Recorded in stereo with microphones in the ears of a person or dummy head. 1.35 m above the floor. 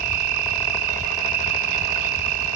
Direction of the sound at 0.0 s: 50° right (ahead or behind).